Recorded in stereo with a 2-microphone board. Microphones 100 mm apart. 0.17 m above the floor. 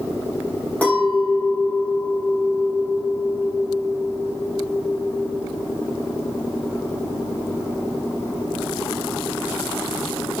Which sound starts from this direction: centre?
A clink, at 0.8 s.